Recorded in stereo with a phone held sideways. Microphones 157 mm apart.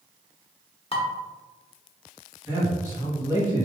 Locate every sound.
0.9 s dishes clattering: 35° left (ahead or behind), 0.8 m
2.5 s a man speaking: 20° right (ahead or behind), 1.7 m